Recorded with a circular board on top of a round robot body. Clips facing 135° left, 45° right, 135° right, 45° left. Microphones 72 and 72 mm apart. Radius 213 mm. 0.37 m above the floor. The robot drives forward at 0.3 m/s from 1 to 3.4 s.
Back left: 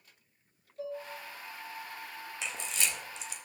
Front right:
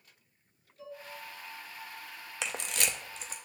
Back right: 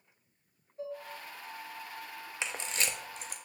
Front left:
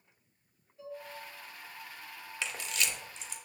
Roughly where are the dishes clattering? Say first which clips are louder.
Back left 7 dB, back right 4 dB; behind.